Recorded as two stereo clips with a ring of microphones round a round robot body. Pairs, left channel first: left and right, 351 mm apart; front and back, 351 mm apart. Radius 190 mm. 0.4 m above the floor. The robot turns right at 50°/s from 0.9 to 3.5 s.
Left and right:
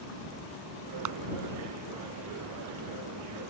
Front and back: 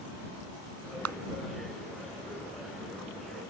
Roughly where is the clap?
Behind right.